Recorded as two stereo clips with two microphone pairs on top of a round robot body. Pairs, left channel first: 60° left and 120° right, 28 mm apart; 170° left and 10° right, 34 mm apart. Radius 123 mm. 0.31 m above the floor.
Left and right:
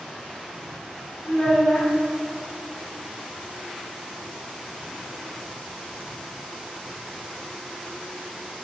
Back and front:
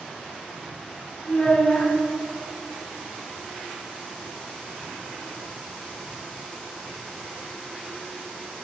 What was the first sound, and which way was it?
A child speaking, 105° left.